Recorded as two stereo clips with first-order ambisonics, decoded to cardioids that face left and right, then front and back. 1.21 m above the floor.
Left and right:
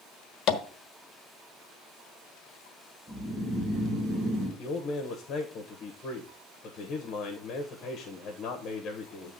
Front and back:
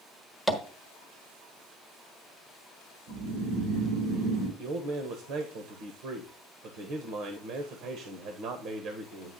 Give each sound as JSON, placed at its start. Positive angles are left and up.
{"t": 0.5, "sound": "tapping", "azimuth_deg": 100, "distance_m": 1.1}
{"t": 3.1, "sound": "snoring", "azimuth_deg": -160, "distance_m": 4.5}
{"t": 4.6, "sound": "a man speaking", "azimuth_deg": 145, "distance_m": 1.2}